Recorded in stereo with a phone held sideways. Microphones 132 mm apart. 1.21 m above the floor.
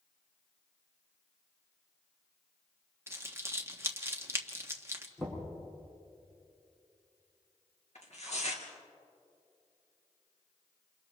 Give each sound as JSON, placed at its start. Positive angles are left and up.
{"t": 3.1, "sound": "crumpling", "side_deg": -20, "distance_m": 1.4}
{"t": 5.2, "sound": "knocking", "side_deg": 10, "distance_m": 8.0}
{"t": 8.0, "sound": "tearing paper", "side_deg": 60, "distance_m": 3.0}